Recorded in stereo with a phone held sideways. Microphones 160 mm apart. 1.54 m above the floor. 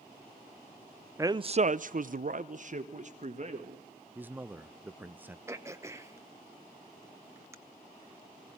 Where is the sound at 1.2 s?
15° right (ahead or behind), 0.5 m; by 3.8 s 45° right (ahead or behind), 2 m.